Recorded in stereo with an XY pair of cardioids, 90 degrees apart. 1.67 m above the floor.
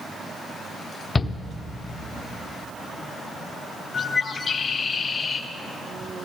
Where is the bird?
55° left, 1.1 m.